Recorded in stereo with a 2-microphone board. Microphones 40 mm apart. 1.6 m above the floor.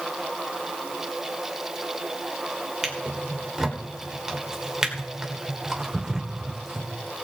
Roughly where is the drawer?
Centre.